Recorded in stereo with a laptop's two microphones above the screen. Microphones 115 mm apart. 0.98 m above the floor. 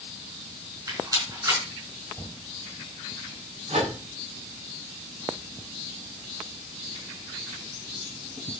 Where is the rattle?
35° right (ahead or behind), 4.5 m.